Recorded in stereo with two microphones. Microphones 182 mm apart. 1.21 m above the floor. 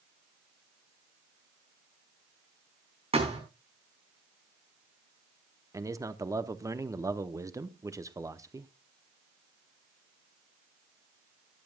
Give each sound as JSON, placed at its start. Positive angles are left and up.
{"t": 3.1, "sound": "a thud", "side_deg": -35, "distance_m": 5.0}
{"t": 5.7, "sound": "a man speaking", "side_deg": -20, "distance_m": 0.7}